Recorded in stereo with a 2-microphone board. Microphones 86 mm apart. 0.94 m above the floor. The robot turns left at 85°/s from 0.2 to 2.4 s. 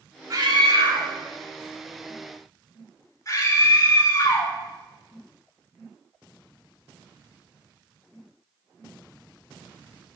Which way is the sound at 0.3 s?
40° right (ahead or behind).